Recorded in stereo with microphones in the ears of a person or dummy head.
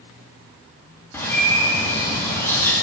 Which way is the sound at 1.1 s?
5° left (ahead or behind).